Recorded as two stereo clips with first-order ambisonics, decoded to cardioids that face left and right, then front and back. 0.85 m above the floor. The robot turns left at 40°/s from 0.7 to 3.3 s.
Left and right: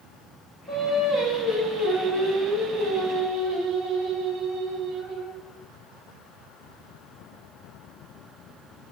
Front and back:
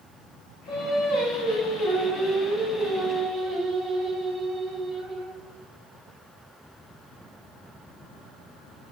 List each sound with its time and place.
0.7 s singing: 5° left, 1.3 m; by 5.4 s 100° right, 1.3 m